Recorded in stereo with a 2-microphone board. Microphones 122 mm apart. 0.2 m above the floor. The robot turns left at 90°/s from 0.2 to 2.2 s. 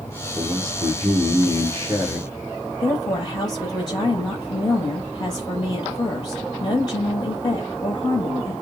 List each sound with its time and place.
0.3 s a man speaking: 10° right, 2.5 m; by 2.7 s straight behind, 2.5 m
2.8 s a woman speaking: 35° left (ahead or behind), 6 m